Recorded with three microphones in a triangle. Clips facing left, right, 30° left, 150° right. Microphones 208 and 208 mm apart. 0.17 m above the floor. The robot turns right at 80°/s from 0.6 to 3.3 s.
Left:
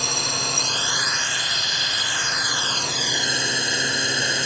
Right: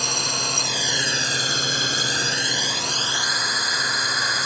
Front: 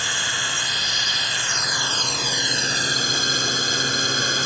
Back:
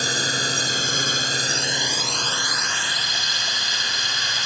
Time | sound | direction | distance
0.0 | a drone | straight behind | ?